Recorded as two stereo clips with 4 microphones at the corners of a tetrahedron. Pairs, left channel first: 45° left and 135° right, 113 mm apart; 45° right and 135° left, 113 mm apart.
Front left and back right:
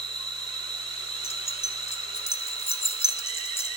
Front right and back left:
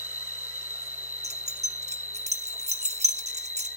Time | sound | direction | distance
0.0 | an insect | 160° right | 1.5 m
1.2 | keys jangling | 115° left | 1.4 m